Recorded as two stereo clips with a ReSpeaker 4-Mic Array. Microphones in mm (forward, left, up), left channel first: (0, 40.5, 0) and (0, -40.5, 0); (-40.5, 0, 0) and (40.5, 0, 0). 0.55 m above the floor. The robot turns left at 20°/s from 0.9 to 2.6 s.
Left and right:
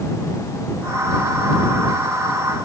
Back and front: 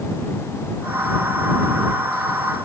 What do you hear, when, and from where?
Only background noise.